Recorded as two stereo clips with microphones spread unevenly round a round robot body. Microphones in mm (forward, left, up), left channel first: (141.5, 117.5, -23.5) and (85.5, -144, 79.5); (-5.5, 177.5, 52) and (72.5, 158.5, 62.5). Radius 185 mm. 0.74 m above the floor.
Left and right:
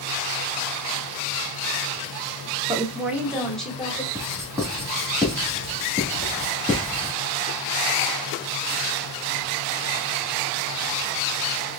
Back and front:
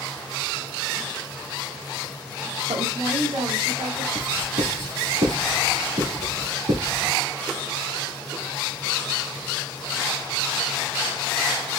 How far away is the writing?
About 2.0 m.